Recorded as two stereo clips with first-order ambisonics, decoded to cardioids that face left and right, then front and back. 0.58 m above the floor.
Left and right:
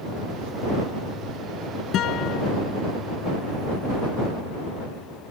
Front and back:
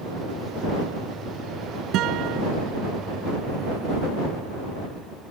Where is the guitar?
140° left.